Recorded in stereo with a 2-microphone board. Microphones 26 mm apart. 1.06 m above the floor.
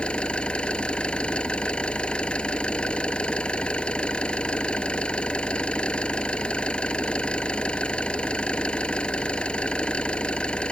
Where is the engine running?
50° left (ahead or behind).